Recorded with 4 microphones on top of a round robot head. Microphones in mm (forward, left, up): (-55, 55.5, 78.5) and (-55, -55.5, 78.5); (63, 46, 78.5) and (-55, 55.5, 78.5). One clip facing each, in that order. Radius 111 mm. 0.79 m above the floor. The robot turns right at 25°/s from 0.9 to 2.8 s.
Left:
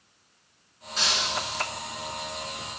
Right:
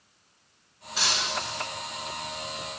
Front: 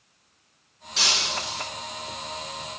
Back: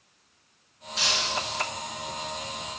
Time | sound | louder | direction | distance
1.0 | breaking glass | left 1 dB, even | 5° right | 5 m